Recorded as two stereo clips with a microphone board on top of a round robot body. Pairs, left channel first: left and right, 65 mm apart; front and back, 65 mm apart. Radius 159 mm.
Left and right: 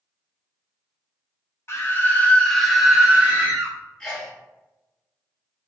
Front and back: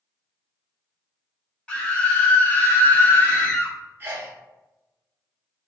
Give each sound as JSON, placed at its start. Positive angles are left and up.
{"t": 1.7, "sound": "a scream", "azimuth_deg": 65, "distance_m": 1.3}
{"t": 4.0, "sound": "a sneeze", "azimuth_deg": 160, "distance_m": 0.8}